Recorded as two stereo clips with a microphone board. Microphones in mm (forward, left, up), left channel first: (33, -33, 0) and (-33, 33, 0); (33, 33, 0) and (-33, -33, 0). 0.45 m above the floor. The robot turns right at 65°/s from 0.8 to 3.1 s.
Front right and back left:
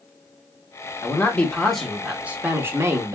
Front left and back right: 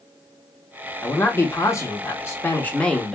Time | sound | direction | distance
1.0 | a man speaking | 5° right | 0.8 m